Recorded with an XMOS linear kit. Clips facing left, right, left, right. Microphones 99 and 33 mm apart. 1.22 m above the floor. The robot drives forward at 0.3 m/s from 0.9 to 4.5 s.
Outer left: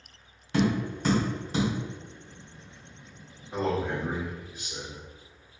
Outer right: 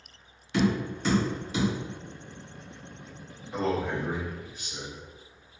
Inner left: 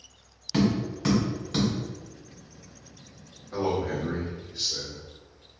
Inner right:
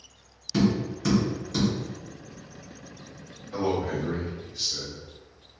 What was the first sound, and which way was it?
Tapping, 45° left (ahead or behind).